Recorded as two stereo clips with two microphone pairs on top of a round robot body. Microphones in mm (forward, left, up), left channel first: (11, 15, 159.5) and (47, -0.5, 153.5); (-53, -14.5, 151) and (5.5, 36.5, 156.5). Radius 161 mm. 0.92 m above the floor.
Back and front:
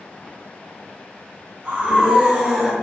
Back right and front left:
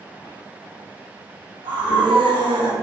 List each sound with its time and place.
1.6 s a scream: 35° left, 1.7 m; by 2.7 s 55° left, 1.3 m